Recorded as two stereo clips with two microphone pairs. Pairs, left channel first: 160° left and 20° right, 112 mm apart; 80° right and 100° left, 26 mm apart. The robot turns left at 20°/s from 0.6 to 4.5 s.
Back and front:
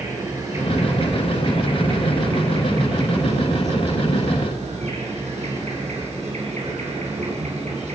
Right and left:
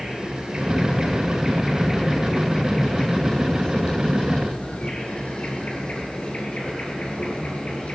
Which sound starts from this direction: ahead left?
An insect, at 0.0 s.